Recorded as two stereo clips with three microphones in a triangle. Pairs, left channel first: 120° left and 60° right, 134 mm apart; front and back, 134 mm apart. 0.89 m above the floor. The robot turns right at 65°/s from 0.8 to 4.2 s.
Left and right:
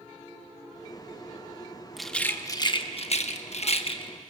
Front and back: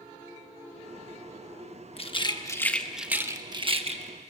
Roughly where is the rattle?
Ahead left.